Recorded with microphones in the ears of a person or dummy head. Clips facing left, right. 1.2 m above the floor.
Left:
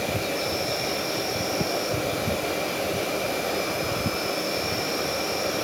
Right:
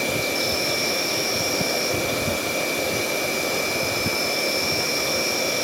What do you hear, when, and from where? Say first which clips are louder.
0.0 s an insect: right 2 dB; 80° right, 8.5 m